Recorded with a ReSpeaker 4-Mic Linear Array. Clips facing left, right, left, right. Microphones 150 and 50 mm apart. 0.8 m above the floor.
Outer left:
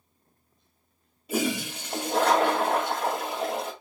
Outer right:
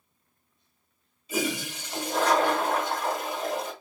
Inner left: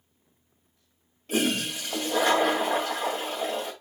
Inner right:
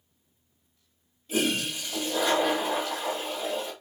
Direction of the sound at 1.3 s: 60° left (ahead or behind).